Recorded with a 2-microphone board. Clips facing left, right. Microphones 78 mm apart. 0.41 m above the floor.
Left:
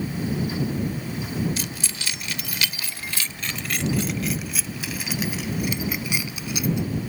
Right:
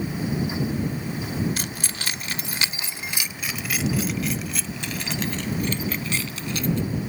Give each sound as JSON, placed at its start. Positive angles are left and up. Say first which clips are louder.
{"t": 1.6, "sound": "keys jangling", "louder": "right 1 dB", "side_deg": -45}